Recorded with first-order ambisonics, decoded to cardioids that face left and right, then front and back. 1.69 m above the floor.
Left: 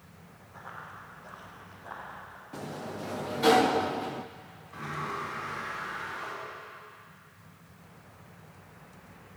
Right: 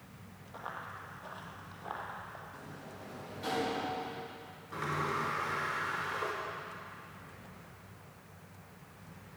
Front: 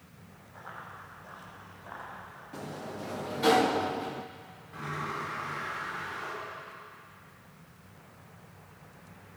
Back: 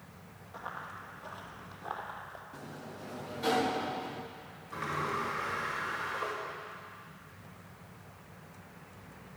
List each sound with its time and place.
0.5 s running footsteps: 130° right, 4 m; by 2.4 s 155° right, 3.5 m
2.5 s a sliding door: 60° left, 0.5 m
4.7 s a sliding door: 125° right, 6 m